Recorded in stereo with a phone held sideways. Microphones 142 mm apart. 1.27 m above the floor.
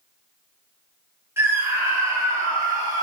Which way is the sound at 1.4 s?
15° right (ahead or behind).